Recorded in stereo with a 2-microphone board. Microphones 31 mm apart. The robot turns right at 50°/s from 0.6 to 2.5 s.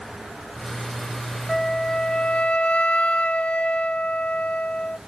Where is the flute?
15° left, 0.6 m; by 5.0 s 65° left, 0.6 m.